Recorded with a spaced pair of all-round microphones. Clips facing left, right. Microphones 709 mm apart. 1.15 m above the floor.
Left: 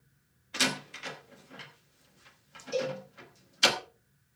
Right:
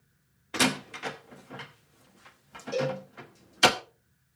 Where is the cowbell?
75° right (ahead or behind), 3.5 m.